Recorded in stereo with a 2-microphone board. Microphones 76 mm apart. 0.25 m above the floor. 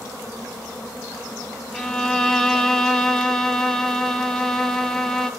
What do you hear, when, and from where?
1.7 s a violin: 5° left (ahead or behind), 1.2 m